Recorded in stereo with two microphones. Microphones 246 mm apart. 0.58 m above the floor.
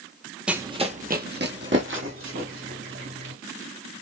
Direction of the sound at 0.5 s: 5° right (ahead or behind).